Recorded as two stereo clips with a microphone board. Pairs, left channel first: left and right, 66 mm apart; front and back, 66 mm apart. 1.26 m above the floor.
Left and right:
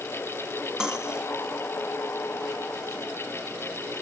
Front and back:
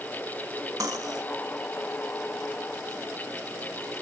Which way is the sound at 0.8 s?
165° right.